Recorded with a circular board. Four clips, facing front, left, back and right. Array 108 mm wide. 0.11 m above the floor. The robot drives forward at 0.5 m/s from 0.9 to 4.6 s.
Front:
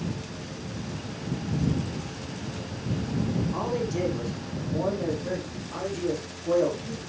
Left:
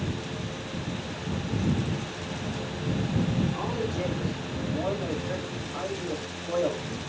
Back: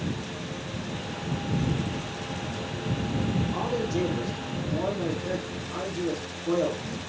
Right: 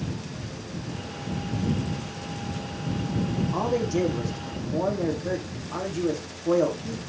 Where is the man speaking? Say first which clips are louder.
Right 5 dB, back 1 dB; 90° right, 5.5 m; by 7.0 s 95° right, 5.5 m.